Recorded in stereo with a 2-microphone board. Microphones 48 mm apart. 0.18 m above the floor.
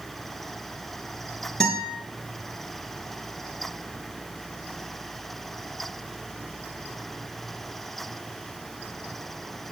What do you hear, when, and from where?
1.6 s a guitar: 10° left (ahead or behind), 3 m